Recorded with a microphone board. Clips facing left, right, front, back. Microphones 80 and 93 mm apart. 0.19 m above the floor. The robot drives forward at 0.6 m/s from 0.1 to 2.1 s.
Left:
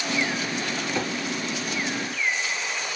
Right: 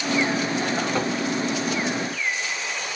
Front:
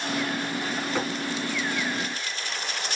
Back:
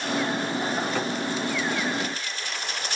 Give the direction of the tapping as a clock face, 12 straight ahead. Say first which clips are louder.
Right 1 dB, even; 2 o'clock.